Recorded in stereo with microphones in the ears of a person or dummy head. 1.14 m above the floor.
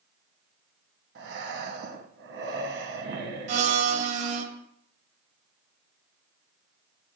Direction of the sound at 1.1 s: 50° right (ahead or behind).